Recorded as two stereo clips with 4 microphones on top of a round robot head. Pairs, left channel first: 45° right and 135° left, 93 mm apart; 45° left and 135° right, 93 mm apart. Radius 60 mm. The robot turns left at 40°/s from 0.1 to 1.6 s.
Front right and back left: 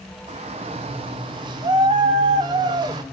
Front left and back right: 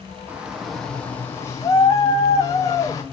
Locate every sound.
0.3 s a shout: 155° left, 0.5 m; by 3.0 s 100° left, 0.5 m